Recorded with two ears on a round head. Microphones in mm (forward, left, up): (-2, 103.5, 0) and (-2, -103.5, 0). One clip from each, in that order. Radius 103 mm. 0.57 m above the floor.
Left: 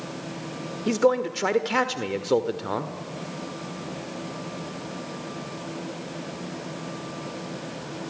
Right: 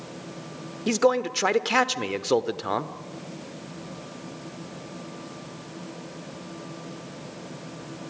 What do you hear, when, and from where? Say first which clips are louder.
0.9 s a man speaking: even; 30° right (ahead or behind), 1.4 m